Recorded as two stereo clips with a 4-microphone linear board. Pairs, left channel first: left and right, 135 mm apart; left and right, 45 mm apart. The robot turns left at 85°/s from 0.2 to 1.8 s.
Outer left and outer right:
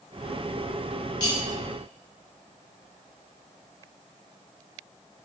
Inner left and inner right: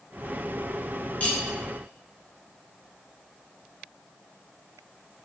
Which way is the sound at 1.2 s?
30° left (ahead or behind).